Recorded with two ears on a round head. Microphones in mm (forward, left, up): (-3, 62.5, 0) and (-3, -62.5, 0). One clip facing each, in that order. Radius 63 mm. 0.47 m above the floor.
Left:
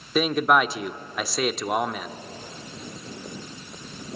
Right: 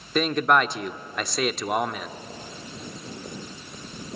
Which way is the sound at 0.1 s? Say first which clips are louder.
Left 1 dB; 5° left (ahead or behind).